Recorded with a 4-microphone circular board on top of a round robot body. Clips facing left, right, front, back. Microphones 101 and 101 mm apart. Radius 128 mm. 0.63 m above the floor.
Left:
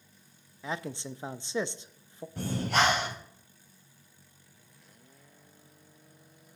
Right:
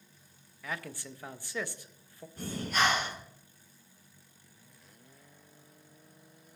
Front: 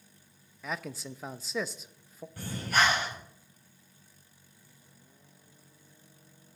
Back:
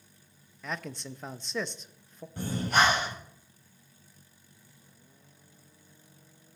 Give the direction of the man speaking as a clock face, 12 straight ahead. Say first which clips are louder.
Left 4 dB, even; 9 o'clock.